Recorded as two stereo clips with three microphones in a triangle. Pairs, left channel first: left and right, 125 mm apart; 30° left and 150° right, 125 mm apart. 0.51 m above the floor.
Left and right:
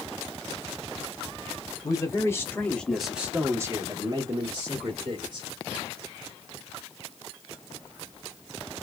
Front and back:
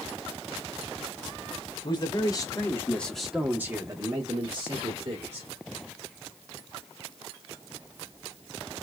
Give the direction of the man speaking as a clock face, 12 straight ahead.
10 o'clock.